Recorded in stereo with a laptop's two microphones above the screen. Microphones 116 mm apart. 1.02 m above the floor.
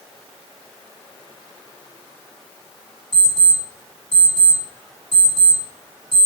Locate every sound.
3.1 s an alarm clock: 45° left (ahead or behind), 2.5 m